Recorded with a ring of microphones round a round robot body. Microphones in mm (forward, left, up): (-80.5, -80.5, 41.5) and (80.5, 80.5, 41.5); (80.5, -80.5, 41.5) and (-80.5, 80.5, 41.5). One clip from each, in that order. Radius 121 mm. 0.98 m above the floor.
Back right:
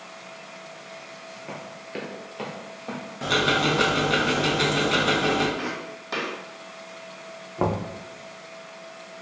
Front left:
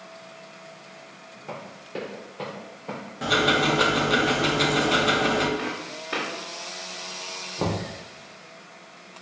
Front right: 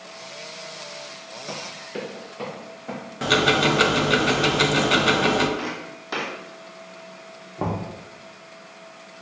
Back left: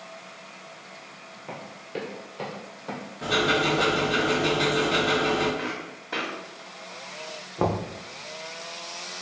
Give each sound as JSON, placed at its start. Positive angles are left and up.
{"t": 1.5, "sound": "running footsteps", "azimuth_deg": -75, "distance_m": 1.0}
{"t": 3.2, "sound": "ticking", "azimuth_deg": -45, "distance_m": 0.6}
{"t": 5.6, "sound": "footsteps", "azimuth_deg": -80, "distance_m": 1.7}
{"t": 7.6, "sound": "knocking", "azimuth_deg": 170, "distance_m": 0.5}